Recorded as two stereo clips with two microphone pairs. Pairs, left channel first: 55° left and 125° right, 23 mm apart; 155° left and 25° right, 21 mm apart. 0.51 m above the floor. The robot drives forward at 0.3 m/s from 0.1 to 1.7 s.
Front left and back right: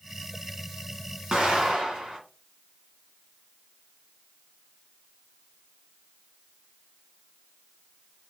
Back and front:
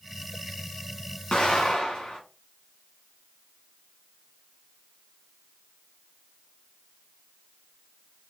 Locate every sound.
1.3 s an explosion: 170° right, 1.4 m; by 2.2 s 175° right, 1.5 m